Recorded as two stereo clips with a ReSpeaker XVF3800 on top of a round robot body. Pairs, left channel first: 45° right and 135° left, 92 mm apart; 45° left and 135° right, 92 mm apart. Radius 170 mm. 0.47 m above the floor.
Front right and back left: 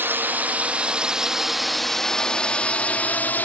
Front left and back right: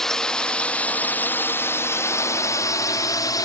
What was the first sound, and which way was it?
A drone, 125° left.